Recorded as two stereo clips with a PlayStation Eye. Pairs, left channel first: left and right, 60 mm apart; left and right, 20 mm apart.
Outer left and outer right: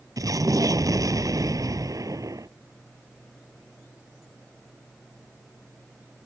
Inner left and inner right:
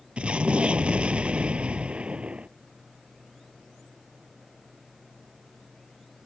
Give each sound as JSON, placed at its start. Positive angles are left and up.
{"t": 0.2, "sound": "an explosion", "side_deg": -75}